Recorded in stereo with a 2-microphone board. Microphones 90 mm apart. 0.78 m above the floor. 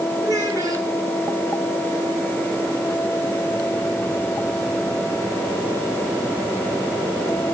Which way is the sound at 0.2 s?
35° right (ahead or behind).